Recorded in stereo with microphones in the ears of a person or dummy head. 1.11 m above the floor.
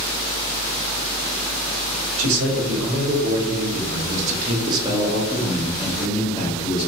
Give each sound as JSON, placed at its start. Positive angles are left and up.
{"t": 2.2, "sound": "a man speaking", "side_deg": -75, "distance_m": 1.6}